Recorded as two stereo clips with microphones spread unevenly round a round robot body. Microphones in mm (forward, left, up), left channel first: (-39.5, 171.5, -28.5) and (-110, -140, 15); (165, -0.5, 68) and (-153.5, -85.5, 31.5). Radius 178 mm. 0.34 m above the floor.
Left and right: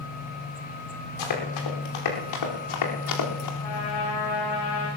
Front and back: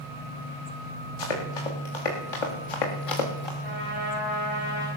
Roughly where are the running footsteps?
Ahead left.